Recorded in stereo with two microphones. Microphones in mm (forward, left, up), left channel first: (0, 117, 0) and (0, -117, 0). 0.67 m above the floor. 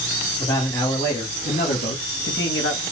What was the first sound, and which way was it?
A man speaking, 20° left (ahead or behind).